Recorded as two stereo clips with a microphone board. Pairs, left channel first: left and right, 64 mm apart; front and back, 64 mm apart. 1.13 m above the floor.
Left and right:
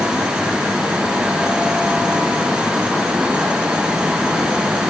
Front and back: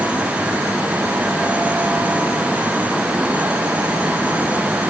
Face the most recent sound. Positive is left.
No sound to turn to.